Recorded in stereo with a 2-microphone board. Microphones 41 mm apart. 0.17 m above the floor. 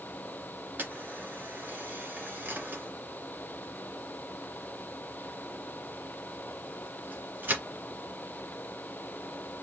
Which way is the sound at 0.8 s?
50° right (ahead or behind).